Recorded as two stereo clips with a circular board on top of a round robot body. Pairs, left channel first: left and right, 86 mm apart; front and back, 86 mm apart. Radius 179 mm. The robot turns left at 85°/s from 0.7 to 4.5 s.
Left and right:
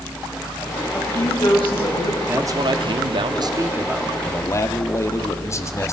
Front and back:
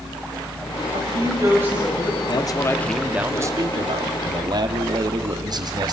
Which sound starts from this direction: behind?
A woman speaking, at 0.9 s.